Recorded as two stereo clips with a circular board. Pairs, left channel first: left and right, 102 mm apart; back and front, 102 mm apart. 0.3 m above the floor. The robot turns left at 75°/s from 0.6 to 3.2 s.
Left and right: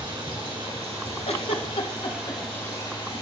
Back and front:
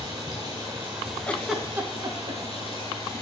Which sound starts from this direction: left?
A giggle, at 1.3 s.